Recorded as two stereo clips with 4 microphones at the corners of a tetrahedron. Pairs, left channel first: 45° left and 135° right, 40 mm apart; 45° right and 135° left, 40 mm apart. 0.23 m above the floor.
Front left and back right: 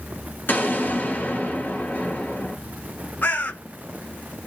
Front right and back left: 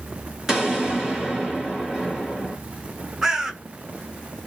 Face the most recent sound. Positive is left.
turn(degrees=60)